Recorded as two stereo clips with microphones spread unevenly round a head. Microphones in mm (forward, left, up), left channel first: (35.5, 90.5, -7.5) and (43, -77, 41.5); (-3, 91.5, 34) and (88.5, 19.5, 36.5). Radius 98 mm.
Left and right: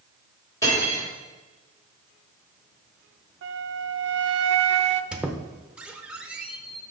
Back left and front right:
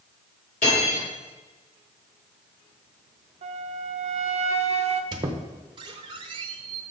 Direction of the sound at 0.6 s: 170° left.